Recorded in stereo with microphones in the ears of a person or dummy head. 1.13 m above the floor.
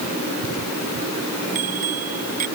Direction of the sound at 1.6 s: 50° right (ahead or behind).